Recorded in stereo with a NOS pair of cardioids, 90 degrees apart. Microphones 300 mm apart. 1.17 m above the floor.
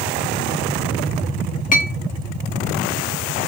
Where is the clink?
25° left, 0.8 m.